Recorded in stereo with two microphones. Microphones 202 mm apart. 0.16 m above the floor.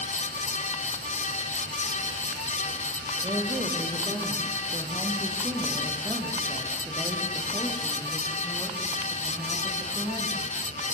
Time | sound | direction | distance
3.2 | a woman speaking | 25° right (ahead or behind) | 5.5 m